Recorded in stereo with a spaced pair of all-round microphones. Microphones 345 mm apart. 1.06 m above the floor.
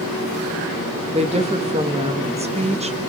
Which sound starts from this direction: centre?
A woman speaking, at 1.1 s.